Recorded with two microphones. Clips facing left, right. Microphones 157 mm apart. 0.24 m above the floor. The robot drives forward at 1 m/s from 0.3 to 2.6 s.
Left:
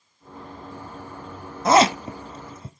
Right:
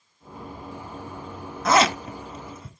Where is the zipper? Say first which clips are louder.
Left 3 dB; 30° left (ahead or behind), 1.1 m.